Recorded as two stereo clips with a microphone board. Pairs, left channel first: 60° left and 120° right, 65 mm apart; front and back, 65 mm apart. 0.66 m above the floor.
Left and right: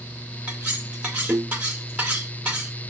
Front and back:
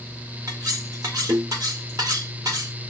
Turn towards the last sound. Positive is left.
turn(degrees=170)